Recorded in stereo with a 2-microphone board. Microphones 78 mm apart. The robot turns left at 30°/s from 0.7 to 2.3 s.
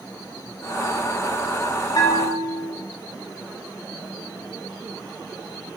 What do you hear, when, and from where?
1.9 s a bell: 60° left (ahead or behind), 0.7 m; by 2.7 s 50° left (ahead or behind), 0.7 m